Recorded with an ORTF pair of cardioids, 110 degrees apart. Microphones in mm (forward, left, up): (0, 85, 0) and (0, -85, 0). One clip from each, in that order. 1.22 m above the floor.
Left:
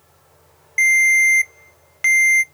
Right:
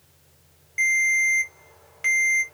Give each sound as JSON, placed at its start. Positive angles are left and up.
{"t": 0.8, "sound": "a ringtone", "azimuth_deg": 40, "distance_m": 0.7}